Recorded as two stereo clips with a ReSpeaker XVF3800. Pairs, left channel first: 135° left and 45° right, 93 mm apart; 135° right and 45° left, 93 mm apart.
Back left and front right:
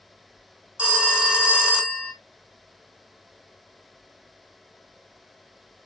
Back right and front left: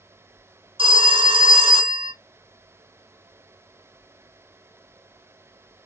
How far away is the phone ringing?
About 0.7 m.